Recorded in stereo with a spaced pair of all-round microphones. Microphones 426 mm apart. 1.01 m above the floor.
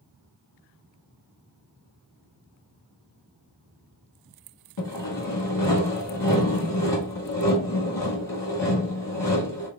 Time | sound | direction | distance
4.8 | sawing | 50° left (ahead or behind) | 1.8 m